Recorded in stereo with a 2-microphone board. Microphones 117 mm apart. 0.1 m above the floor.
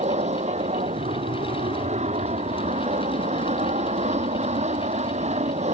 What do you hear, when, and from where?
0.0 s an aircraft: 65° right (ahead or behind)